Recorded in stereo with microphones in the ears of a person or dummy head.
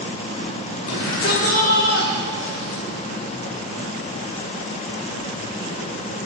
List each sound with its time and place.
0.9 s a shout: 85° left, 4.5 m; by 2.8 s 75° left (ahead or behind), 5 m